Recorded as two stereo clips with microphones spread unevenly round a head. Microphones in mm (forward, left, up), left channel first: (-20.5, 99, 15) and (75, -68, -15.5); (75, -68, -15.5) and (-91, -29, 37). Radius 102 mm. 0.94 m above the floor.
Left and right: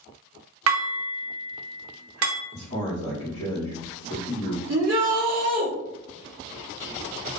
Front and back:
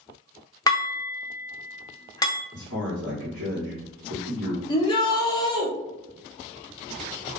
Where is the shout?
70° right, 0.9 m.